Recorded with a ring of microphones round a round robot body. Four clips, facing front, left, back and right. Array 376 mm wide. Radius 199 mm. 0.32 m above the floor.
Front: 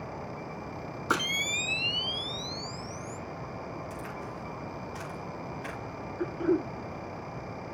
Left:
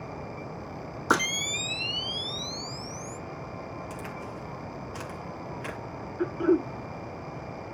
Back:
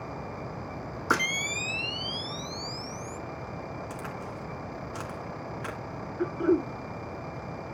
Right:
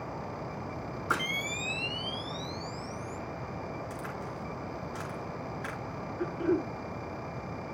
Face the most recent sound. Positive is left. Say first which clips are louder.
# left 5 dB, back 3 dB
turn(degrees=130)